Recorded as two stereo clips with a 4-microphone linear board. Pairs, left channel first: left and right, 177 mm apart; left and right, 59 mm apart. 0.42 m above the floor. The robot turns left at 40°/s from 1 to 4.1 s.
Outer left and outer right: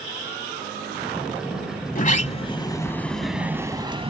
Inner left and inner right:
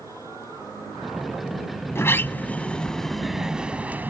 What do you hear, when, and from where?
1.9 s a sliding door: 55° left; by 4.1 s 35° right